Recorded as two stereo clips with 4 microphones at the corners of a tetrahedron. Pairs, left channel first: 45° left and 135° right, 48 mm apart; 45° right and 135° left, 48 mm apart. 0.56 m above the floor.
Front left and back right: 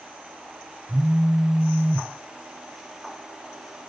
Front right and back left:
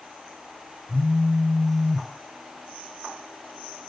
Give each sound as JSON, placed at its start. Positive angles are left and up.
{"t": 0.9, "sound": "a phone buzzing", "azimuth_deg": -110, "distance_m": 1.3}